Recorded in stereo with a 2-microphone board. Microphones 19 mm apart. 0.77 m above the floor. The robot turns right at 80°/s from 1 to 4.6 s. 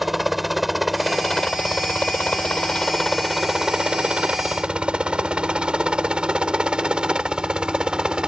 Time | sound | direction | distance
0.0 | a helicopter | 10° right (ahead or behind) | ?